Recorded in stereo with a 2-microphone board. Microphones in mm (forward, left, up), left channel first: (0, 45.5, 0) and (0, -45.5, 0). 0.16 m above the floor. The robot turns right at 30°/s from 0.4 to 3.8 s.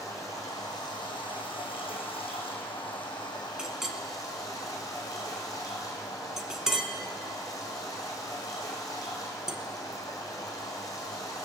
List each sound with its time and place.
0.0 s running water: 35° left, 3 m; by 11.4 s 140° left, 3 m
3.6 s a clink: 10° right (ahead or behind), 0.9 m; by 9.6 s 5° right (ahead or behind), 0.9 m